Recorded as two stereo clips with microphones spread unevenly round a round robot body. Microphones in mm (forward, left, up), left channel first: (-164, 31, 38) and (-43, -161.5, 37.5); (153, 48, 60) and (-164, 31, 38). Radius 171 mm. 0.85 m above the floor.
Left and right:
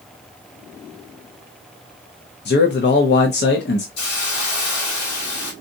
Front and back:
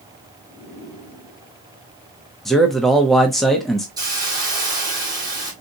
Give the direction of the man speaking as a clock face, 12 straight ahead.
9 o'clock.